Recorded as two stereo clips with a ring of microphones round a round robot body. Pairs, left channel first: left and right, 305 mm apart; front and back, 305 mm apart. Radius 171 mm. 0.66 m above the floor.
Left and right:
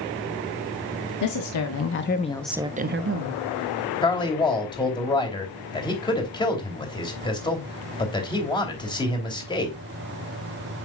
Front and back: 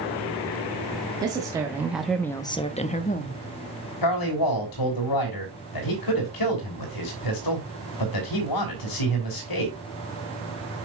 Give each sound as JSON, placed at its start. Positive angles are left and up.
{"t": 1.2, "sound": "a woman speaking", "azimuth_deg": 105, "distance_m": 1.6}
{"t": 4.0, "sound": "a man speaking", "azimuth_deg": 15, "distance_m": 3.0}